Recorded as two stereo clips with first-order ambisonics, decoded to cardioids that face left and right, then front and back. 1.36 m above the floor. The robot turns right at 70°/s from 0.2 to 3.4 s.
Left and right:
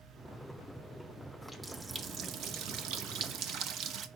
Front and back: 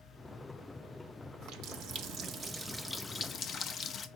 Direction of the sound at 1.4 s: 165° left.